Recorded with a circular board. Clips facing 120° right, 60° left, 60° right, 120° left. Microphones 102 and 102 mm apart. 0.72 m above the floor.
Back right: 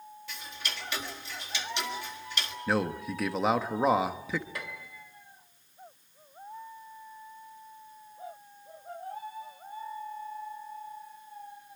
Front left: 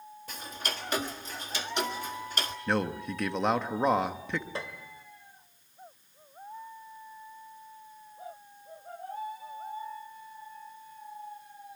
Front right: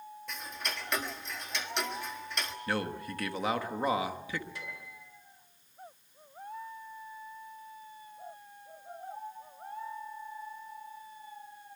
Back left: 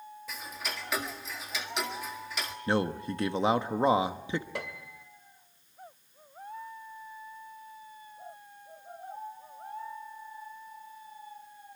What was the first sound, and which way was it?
Ticking, 35° left.